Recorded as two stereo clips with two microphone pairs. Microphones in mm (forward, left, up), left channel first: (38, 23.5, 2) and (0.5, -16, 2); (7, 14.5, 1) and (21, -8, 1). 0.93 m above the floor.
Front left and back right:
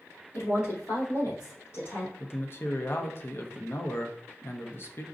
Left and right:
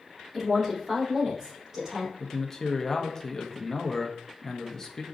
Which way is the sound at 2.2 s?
55° left.